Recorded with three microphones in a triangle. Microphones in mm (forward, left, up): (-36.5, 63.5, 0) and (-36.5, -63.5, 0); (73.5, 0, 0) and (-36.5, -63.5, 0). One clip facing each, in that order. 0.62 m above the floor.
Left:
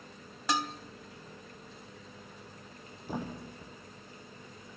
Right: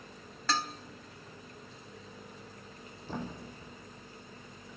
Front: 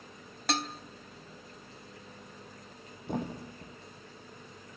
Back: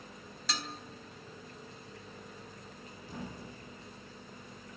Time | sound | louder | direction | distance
0.5 | dishes clattering | left 2 dB, front 8 dB | 20° left | 1.2 m
3.1 | a thud | left 2 dB, front 9 dB | 15° left | 2.5 m